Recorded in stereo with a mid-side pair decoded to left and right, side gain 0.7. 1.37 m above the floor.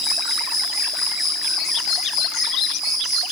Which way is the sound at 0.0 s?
5° left.